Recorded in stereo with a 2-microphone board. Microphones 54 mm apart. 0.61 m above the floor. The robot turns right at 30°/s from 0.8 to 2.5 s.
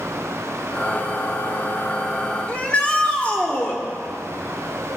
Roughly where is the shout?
Left.